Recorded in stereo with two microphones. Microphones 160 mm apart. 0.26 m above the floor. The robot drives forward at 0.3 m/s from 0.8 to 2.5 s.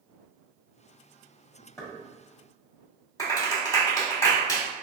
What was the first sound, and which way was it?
Knocking, 20° left (ahead or behind).